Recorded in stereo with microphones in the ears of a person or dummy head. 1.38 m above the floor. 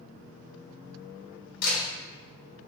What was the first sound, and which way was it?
A camera shutter, 50° left (ahead or behind).